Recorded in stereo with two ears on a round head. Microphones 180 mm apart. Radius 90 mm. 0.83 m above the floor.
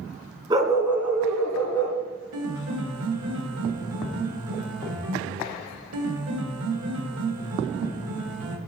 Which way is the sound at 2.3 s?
85° right.